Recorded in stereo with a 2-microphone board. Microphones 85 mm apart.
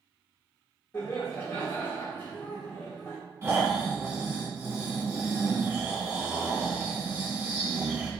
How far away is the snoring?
About 1.5 m.